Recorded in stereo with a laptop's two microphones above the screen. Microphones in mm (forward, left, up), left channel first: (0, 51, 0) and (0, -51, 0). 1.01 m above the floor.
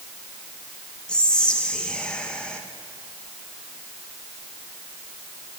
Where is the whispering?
10° left (ahead or behind), 0.5 m.